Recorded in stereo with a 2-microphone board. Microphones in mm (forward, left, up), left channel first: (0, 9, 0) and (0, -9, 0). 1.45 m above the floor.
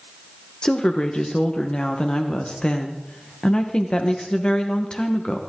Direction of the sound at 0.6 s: 50° left (ahead or behind).